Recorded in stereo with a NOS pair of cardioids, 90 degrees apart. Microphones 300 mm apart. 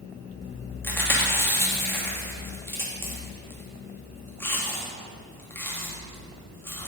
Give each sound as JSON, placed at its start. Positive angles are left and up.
{"t": 0.8, "sound": "chewing", "azimuth_deg": 5, "distance_m": 2.5}